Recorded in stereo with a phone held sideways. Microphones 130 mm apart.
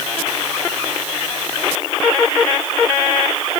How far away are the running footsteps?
No running footsteps in this recording.